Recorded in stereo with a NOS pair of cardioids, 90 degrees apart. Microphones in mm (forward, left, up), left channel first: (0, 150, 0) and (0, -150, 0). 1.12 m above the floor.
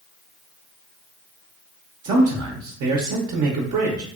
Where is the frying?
I don't hear frying.